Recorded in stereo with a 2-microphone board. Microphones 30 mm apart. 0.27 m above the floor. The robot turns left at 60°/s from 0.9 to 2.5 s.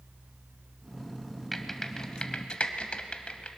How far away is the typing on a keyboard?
About 0.9 m.